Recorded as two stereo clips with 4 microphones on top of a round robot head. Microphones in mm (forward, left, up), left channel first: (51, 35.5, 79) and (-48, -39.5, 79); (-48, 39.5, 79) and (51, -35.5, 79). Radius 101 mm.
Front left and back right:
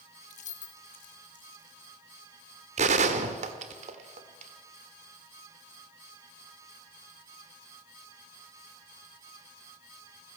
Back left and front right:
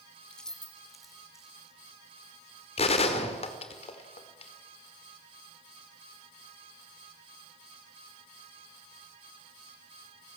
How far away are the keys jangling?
About 1.3 m.